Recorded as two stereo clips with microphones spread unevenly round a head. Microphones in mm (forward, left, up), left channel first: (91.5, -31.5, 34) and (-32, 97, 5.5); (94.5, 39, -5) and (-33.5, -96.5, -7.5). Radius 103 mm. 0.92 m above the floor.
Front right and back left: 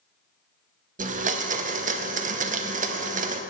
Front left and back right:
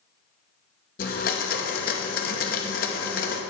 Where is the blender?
95° left, 0.8 m.